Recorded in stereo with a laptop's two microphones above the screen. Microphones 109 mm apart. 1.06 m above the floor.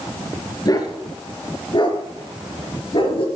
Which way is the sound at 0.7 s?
35° left (ahead or behind).